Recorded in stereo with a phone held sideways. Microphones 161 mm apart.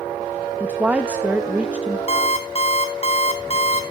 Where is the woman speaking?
10° right (ahead or behind), 0.6 m.